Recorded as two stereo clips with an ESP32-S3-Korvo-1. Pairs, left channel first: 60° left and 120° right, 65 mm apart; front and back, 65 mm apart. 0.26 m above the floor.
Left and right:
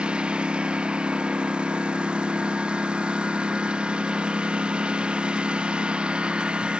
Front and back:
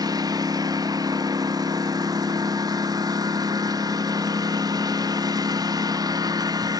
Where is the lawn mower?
165° left.